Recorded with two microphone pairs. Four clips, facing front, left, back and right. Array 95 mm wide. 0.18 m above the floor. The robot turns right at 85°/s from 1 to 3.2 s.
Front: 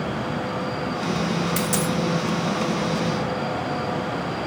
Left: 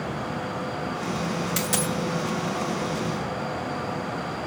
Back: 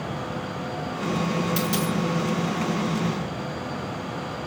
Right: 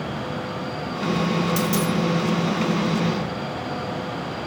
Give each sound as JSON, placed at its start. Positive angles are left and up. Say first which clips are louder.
{"t": 1.6, "sound": "a dropped coin", "louder": "right 5 dB, front 1 dB", "azimuth_deg": 50, "distance_m": 0.9}